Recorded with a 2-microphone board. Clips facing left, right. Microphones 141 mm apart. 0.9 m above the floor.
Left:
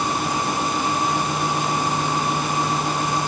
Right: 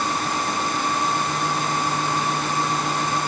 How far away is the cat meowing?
No cat meowing in this recording.